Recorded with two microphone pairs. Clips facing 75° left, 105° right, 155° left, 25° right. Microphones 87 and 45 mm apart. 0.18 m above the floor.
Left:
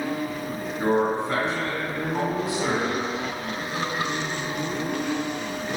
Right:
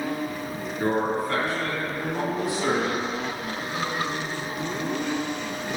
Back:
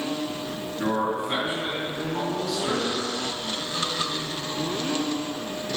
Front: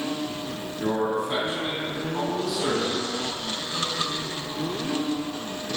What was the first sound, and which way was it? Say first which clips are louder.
A man speaking: left 2 dB, even; 130° left.